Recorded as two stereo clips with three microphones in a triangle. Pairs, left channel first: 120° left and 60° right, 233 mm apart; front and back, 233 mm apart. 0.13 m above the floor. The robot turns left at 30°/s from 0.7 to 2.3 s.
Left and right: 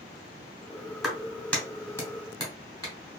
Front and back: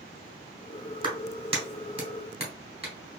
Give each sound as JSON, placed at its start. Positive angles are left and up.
{"t": 1.0, "sound": "a clap", "azimuth_deg": -150, "distance_m": 1.2}